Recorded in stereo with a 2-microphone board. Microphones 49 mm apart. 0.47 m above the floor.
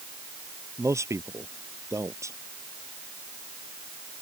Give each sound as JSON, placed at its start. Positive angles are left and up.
{"t": 0.8, "sound": "a man speaking", "side_deg": -85}